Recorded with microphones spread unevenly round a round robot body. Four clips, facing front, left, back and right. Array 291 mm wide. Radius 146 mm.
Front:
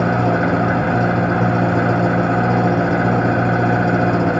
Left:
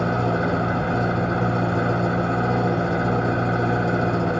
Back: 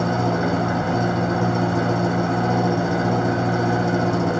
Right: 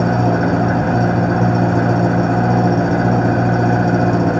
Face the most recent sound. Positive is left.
turn(degrees=-70)